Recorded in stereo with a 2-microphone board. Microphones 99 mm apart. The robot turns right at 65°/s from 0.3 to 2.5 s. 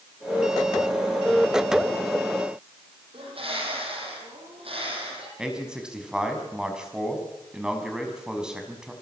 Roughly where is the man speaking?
Centre.